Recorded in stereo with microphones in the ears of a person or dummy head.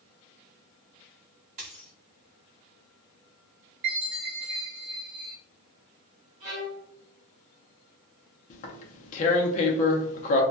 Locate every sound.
1.6 s a dropped coin: 35° right (ahead or behind), 1.2 m
3.8 s a chime: 50° right (ahead or behind), 1.3 m
6.4 s a violin: 20° right (ahead or behind), 1.0 m
8.5 s tearing paper: 35° left (ahead or behind), 0.5 m